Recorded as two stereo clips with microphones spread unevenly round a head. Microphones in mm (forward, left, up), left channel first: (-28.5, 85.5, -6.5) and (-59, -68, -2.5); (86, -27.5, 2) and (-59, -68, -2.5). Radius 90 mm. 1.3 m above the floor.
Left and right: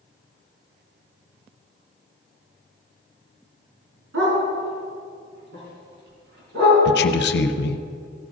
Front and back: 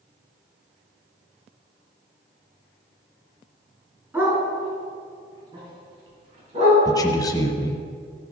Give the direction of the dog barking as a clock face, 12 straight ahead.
3 o'clock.